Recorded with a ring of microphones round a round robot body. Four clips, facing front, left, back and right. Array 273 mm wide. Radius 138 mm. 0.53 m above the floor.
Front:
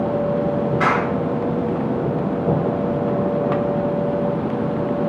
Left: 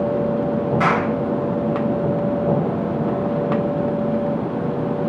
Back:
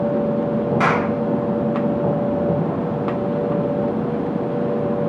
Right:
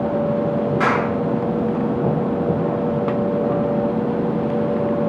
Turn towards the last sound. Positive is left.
turn(degrees=180)